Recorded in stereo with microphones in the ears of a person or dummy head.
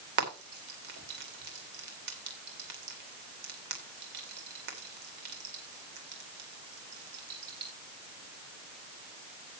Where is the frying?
50° right (ahead or behind), 2 m.